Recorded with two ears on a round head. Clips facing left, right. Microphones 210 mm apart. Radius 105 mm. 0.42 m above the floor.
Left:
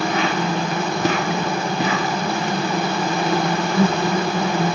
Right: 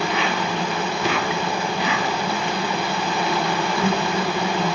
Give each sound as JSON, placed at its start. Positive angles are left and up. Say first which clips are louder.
{"t": 0.0, "sound": "an insect", "louder": "left 3 dB", "side_deg": 40, "distance_m": 0.8}